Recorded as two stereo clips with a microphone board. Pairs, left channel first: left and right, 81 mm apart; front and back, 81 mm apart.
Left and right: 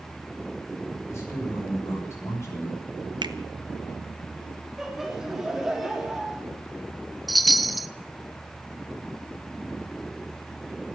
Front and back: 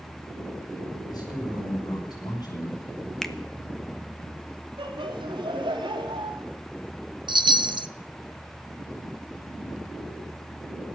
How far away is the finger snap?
About 0.9 m.